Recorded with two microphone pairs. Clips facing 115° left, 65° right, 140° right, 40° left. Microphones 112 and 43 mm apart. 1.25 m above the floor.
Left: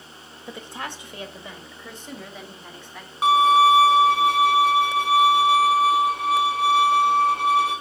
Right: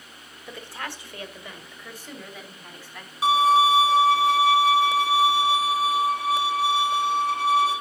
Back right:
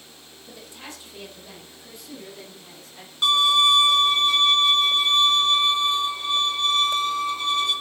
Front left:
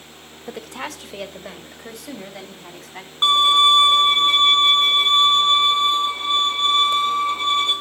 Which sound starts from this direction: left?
A violin, at 3.2 s.